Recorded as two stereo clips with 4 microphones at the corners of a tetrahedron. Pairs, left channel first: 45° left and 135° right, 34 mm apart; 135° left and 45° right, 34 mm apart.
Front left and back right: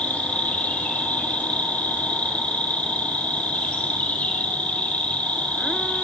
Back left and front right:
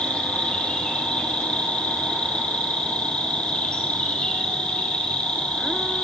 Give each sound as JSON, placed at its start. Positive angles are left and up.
{"t": 0.0, "sound": "an insect", "azimuth_deg": 80, "distance_m": 4.0}